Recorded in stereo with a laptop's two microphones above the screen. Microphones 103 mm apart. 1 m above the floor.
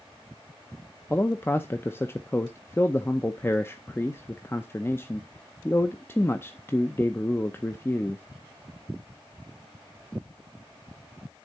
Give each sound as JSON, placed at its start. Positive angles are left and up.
{"t": 1.1, "sound": "a man speaking", "side_deg": 25, "distance_m": 0.6}